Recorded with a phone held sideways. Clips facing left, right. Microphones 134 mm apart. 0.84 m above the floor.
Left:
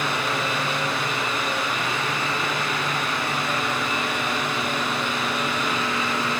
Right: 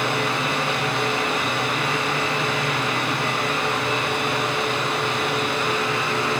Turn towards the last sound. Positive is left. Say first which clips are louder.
# right 2 dB
turn(degrees=-70)  # may be behind; listen again after turning